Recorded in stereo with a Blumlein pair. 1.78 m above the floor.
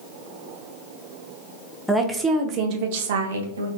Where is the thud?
No thud in this recording.